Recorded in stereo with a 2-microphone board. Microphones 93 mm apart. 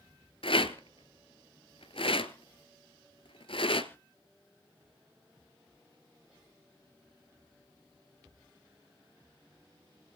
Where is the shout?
I don't hear a shout.